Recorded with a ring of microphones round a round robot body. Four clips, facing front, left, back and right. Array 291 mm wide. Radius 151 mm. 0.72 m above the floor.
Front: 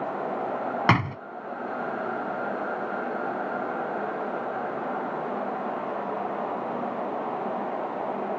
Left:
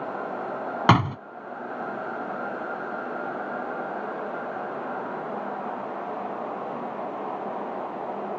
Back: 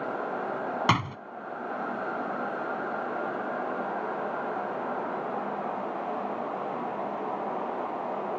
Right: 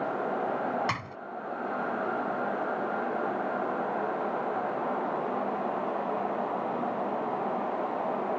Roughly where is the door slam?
Left.